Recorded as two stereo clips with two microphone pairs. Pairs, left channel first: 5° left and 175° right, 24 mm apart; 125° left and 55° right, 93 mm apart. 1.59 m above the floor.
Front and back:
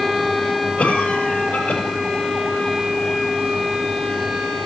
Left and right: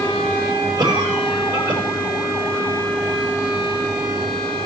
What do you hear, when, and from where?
0.8 s a cough: 15° right, 6 m